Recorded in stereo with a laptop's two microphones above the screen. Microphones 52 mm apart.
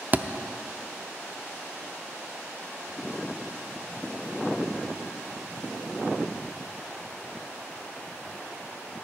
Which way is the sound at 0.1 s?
35° right (ahead or behind).